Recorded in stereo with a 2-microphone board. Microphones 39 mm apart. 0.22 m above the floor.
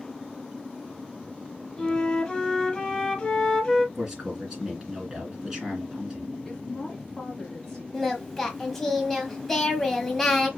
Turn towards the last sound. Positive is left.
turn(degrees=10)  # may be behind; listen again after turning